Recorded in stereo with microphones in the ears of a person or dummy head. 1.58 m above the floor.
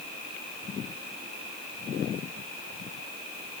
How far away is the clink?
I don't hear a clink.